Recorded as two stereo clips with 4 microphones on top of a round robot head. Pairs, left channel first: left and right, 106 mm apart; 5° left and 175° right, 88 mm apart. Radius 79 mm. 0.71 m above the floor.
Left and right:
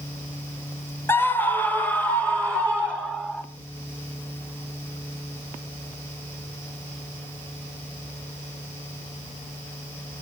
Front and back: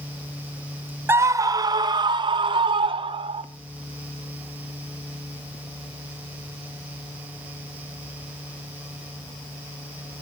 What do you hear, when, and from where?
1.1 s a scream: 145° left, 1.0 m; by 3.4 s 170° left, 3 m